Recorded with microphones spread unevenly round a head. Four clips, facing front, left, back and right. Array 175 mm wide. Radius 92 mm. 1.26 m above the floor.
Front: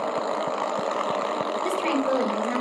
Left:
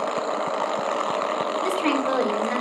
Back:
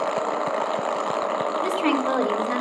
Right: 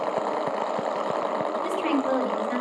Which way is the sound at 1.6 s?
140° left.